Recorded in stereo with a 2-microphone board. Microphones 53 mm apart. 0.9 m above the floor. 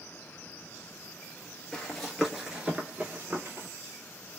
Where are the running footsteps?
15° left (ahead or behind), 1.0 m; by 3.7 s 45° right (ahead or behind), 1.2 m.